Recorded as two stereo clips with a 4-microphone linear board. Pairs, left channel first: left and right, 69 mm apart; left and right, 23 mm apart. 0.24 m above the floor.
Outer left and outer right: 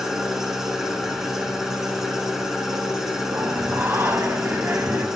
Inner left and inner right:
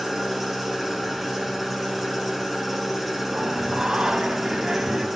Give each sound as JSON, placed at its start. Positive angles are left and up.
{"t": 0.0, "sound": "an engine running", "side_deg": -5, "distance_m": 1.9}
{"t": 3.3, "sound": "singing", "side_deg": -35, "distance_m": 1.3}